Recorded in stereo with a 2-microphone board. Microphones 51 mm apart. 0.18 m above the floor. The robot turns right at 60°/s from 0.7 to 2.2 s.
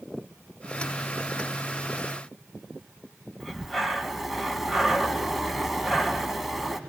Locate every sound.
3.4 s breathing: 5° right (ahead or behind), 1.4 m